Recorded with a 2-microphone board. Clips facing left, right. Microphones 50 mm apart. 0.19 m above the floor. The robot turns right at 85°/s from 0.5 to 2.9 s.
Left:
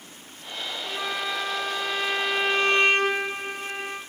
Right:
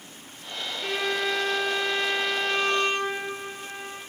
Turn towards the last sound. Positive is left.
turn(degrees=55)